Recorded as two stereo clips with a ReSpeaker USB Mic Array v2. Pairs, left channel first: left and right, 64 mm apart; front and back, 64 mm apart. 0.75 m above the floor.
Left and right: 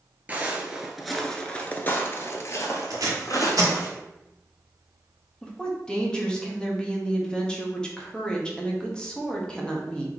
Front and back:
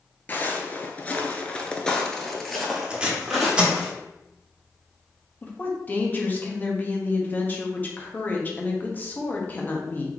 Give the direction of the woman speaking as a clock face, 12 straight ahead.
11 o'clock.